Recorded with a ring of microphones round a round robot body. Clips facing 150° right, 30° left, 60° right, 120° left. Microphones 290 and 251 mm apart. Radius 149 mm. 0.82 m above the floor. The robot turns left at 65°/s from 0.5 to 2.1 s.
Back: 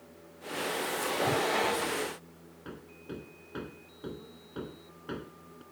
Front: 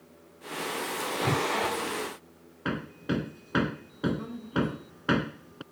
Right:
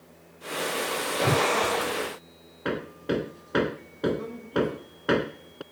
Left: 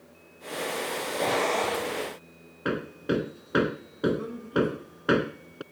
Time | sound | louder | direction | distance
1.2 | a whoosh | front 2 dB, right 3 dB | 20° right | ?
2.6 | hammering | front 12 dB, left 1 dB | 40° left | ?